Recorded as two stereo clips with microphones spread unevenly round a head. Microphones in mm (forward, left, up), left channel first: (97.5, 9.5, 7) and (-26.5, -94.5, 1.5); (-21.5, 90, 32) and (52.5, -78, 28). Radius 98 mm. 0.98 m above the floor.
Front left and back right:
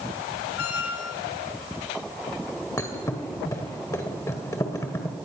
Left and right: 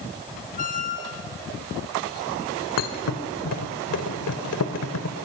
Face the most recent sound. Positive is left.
turn(degrees=115)